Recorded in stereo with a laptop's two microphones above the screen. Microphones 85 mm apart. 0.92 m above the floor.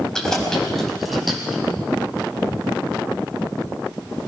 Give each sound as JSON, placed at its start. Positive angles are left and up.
{"t": 0.1, "sound": "keys jangling", "side_deg": 5, "distance_m": 5.0}